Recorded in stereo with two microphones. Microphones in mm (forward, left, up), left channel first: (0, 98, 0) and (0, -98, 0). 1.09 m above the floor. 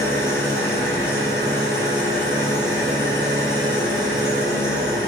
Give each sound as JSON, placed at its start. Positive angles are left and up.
{"t": 0.0, "sound": "an engine running", "side_deg": 15, "distance_m": 7.5}